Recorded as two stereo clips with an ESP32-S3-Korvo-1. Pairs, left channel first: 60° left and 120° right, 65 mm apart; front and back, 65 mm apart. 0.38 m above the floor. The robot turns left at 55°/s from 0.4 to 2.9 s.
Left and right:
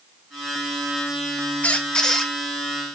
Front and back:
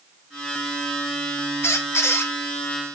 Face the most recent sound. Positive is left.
turn(degrees=-60)